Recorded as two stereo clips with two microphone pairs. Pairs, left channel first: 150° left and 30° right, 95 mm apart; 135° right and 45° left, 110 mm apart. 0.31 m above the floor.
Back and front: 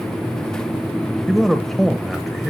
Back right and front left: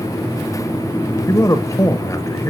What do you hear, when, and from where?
1.3 s a man speaking: 120° right, 1.1 m